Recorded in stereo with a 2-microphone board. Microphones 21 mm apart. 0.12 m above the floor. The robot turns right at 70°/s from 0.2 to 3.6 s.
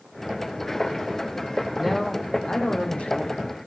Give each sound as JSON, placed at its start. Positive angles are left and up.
{"t": 1.8, "sound": "a man speaking", "azimuth_deg": -10, "distance_m": 5.0}